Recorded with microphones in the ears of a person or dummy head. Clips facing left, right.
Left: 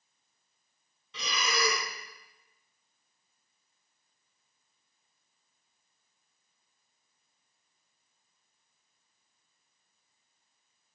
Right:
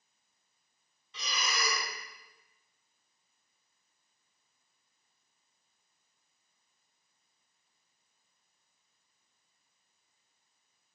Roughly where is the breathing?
Left.